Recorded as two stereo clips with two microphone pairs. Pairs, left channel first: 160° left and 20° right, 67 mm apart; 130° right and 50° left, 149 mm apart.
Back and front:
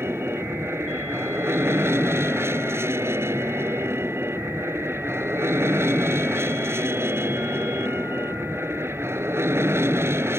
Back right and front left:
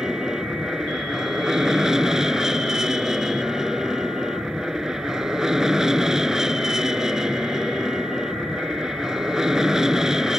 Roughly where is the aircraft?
Ahead right.